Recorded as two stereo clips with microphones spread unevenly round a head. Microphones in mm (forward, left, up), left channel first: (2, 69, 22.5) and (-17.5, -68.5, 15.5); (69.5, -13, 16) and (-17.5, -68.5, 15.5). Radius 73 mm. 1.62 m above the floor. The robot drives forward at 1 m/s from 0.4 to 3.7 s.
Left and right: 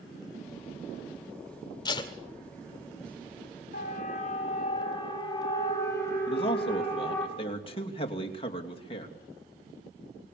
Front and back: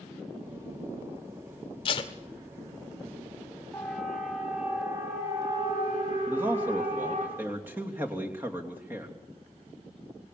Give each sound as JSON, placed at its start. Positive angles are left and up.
{"t": 1.9, "sound": "tape being pulled", "azimuth_deg": 30, "distance_m": 1.7}
{"t": 3.7, "sound": "a siren", "azimuth_deg": 120, "distance_m": 3.5}
{"t": 6.3, "sound": "a man speaking", "azimuth_deg": 135, "distance_m": 3.0}